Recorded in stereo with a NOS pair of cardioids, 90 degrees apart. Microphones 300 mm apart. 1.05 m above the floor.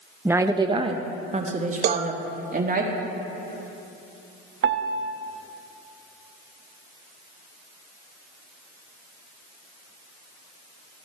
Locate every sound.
0.2 s a woman speaking: 5° right, 0.5 m; by 2.8 s 30° right, 1.8 m
1.8 s a cowbell: 65° right, 0.7 m
4.6 s a piano: 45° right, 0.8 m